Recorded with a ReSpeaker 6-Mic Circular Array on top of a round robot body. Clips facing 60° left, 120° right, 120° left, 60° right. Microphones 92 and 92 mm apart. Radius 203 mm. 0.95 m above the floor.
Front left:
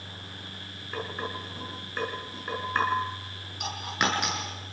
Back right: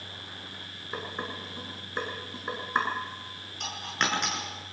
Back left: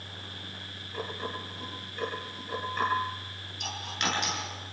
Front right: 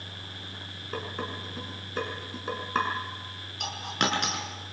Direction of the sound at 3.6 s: 20° right.